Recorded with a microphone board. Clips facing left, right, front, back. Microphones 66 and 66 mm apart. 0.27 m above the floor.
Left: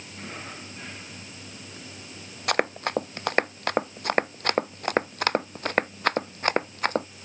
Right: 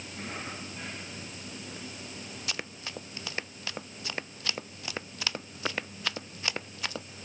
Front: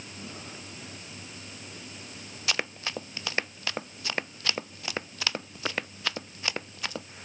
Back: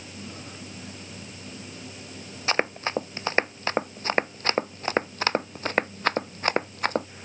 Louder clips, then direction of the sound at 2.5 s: Left 16 dB, back 7 dB; 125° left.